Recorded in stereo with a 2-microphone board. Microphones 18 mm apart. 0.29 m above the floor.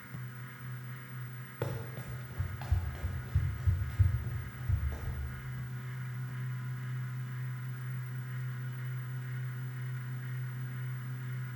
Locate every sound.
1.6 s running footsteps: 30° right (ahead or behind), 1.1 m; by 5.2 s 35° right (ahead or behind), 4 m